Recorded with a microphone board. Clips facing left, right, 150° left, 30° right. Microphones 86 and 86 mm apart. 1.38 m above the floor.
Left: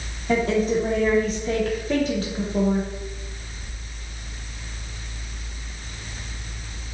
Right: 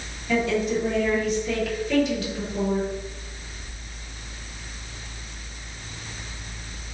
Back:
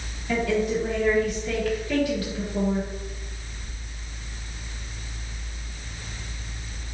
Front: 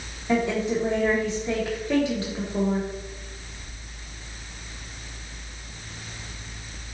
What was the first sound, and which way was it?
A woman speaking, 35° left.